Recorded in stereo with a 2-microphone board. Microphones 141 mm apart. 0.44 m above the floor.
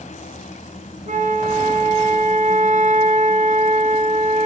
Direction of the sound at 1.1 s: 65° right (ahead or behind).